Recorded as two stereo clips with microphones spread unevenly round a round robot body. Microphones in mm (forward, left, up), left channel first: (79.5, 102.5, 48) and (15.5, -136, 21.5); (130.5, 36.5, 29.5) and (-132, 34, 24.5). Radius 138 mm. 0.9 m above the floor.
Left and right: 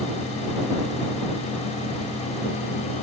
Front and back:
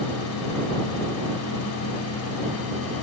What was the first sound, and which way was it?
Only background noise.